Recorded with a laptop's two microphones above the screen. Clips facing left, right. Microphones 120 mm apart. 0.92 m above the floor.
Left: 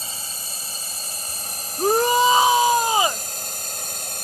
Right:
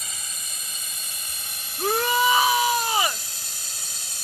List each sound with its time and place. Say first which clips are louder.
0.0 s a drone: left 4 dB; 35° left (ahead or behind); by 4.2 s 55° left (ahead or behind)
1.8 s a shout: left 5 dB; 25° left (ahead or behind)